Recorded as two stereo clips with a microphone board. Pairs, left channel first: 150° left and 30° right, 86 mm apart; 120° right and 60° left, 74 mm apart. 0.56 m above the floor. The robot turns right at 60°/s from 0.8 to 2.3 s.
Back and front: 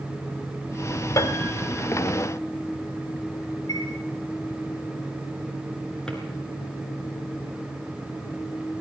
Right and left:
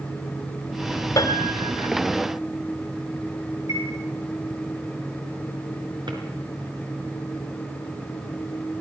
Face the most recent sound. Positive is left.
turn(degrees=70)